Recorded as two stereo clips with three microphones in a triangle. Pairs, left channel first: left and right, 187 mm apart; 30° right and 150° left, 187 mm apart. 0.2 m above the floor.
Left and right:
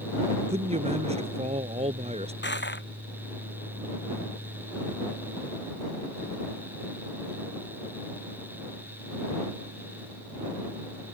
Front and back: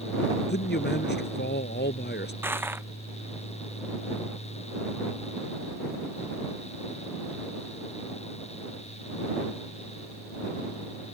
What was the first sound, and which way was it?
A man speaking, 35° right.